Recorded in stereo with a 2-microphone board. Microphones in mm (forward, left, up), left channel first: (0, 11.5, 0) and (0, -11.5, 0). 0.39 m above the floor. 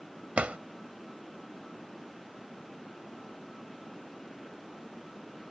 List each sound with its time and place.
0.4 s a drawer: 70° right (ahead or behind)